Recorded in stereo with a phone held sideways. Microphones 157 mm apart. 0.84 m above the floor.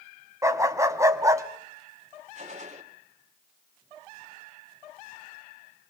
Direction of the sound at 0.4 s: 20° right (ahead or behind).